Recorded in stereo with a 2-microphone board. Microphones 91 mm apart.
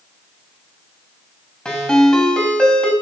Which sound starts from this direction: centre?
A ringtone, at 1.6 s.